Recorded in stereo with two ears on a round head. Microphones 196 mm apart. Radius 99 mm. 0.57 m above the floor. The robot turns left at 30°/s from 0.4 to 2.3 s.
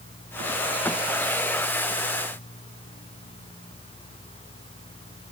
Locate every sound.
Only background noise.